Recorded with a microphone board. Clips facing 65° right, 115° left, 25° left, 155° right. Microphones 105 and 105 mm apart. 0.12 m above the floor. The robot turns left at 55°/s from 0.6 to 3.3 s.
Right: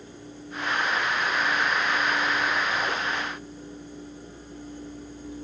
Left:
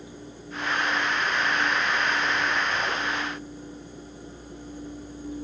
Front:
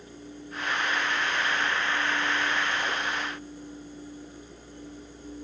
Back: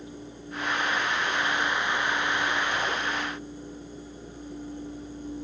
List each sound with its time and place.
Only background noise.